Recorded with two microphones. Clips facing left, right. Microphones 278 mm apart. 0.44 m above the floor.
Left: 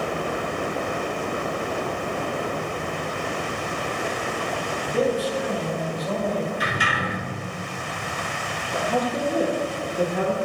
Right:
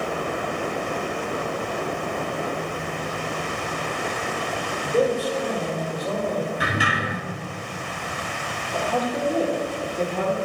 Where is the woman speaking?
10° left (ahead or behind), 0.7 m.